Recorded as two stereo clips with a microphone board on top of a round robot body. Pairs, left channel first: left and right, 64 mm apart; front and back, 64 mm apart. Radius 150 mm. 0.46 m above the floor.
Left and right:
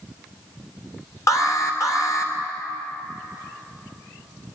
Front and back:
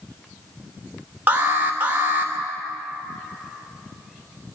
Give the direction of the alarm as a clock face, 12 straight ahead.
8 o'clock.